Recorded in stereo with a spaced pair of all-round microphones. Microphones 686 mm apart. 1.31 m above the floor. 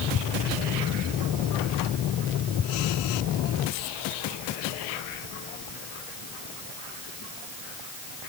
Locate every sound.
Only background noise.